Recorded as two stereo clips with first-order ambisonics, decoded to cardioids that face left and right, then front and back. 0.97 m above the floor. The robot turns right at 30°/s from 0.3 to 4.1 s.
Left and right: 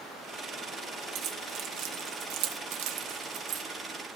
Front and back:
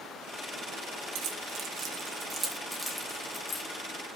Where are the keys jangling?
140° right, 0.8 m; by 3.6 s 65° right, 0.8 m.